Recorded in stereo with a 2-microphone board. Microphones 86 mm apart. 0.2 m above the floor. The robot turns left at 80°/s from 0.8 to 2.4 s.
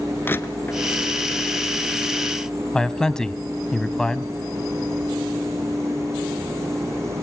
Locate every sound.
0.2 s crushing: 25° left (ahead or behind), 1.1 m
2.7 s a man speaking: 5° left (ahead or behind), 1.1 m